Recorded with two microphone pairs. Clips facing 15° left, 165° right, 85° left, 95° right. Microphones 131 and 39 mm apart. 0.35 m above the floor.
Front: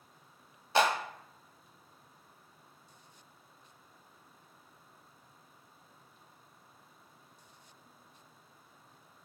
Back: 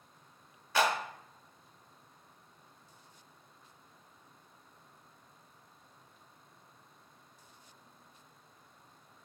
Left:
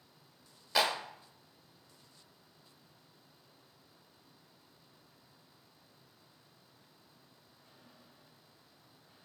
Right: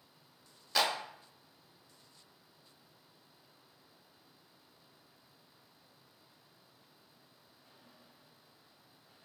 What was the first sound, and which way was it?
A clap, 10° left.